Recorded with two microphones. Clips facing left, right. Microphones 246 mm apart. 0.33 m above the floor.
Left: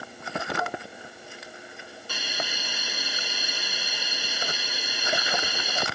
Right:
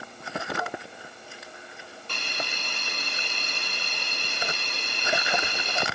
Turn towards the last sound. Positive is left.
turn(degrees=5)  # may be behind; listen again after turning